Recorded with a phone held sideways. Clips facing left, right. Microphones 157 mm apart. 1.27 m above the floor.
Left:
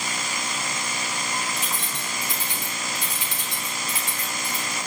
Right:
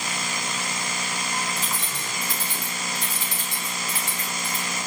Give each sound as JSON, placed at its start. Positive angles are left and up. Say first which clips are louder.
{"t": 1.6, "sound": "keys jangling", "louder": "even", "side_deg": 20, "distance_m": 2.5}